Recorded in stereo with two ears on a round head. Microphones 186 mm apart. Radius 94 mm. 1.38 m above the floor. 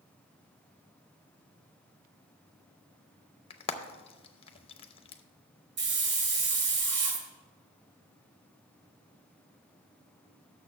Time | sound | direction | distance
3.5 | frying | 25° left (ahead or behind) | 0.6 m
5.8 | a hiss | 50° right (ahead or behind) | 1.7 m